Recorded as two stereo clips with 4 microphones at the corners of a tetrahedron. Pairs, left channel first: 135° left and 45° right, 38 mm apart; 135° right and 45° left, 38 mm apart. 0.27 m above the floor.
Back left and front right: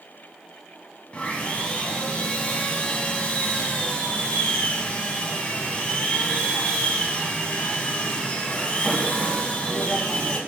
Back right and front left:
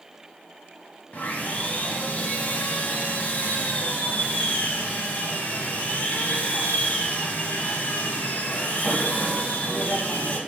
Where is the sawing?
170° right, 0.6 m.